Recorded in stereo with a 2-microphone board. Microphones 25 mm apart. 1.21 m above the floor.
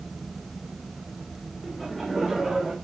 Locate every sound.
1.6 s laughter: 5° left (ahead or behind), 5 m; by 2.7 s centre (ahead or behind), 6 m